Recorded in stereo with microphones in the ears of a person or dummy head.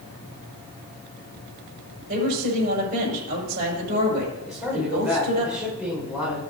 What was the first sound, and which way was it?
A woman speaking, 50° right (ahead or behind).